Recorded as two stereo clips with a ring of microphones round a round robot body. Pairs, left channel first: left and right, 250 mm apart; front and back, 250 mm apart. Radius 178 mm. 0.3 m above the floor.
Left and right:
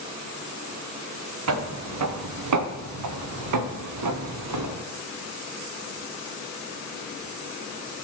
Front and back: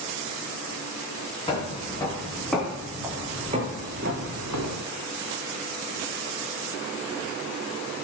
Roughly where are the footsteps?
Right.